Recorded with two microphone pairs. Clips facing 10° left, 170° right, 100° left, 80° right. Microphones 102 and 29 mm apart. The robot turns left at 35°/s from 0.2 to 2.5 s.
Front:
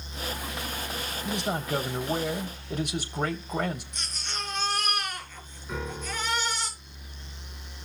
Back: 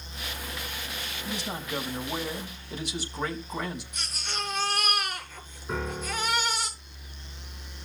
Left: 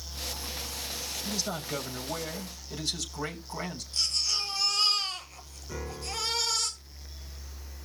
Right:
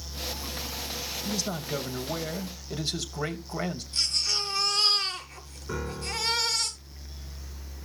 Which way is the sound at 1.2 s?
25° left.